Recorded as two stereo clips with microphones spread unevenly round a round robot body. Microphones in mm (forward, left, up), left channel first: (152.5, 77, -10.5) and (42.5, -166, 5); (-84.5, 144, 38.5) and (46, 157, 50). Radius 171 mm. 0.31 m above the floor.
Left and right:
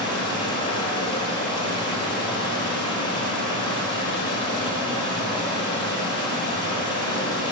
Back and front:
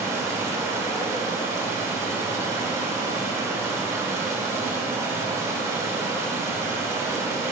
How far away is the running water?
About 1.2 m.